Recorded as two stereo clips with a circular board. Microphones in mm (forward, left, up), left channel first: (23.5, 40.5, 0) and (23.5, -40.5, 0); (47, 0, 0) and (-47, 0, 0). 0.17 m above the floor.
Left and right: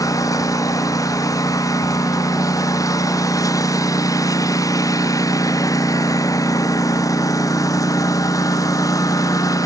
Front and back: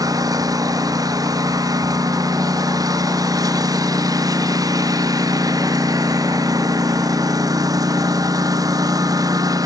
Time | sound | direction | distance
0.0 | a lawn mower | 130° left | ?